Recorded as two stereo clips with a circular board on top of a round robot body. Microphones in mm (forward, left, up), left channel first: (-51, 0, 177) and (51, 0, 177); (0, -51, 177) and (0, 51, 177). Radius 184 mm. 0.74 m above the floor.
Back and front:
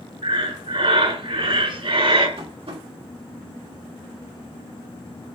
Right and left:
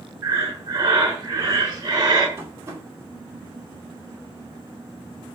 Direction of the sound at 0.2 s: 30° left.